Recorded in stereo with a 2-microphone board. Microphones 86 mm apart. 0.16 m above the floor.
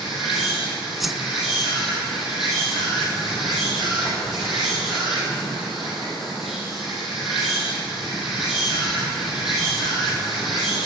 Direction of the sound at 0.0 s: 5° right (ahead or behind).